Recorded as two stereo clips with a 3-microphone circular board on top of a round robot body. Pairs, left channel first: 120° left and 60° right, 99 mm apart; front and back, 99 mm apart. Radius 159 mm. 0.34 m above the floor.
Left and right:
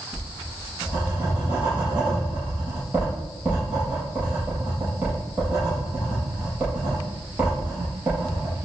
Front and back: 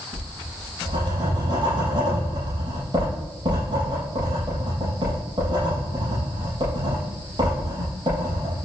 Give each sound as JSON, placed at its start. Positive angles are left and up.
{"t": 0.1, "sound": "writing", "azimuth_deg": -140, "distance_m": 7.0}